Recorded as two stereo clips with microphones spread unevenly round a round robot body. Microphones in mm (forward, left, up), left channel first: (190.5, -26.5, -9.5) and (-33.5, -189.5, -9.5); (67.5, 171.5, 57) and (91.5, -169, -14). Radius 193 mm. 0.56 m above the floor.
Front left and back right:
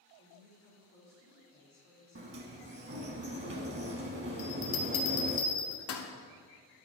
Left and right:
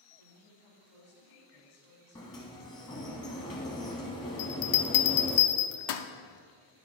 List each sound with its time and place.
0.2 s a woman speaking: 100° left, 4 m
2.1 s a sliding door: 165° left, 0.6 m
4.4 s a bell: 65° left, 0.8 m